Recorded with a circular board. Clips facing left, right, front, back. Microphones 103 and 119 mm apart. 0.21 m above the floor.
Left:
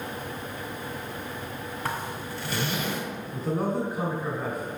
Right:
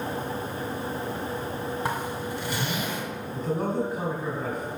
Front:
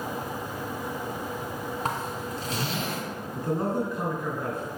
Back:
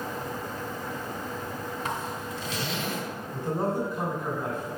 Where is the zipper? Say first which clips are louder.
Right 3 dB, front 2 dB; 30° right, 2 m.